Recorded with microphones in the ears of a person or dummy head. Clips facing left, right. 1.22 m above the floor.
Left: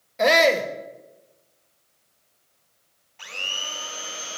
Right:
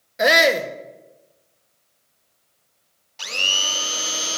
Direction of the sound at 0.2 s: 10° right (ahead or behind).